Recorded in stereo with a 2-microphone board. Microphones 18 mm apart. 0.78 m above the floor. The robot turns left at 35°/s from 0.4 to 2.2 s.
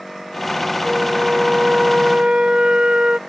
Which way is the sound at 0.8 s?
45° right.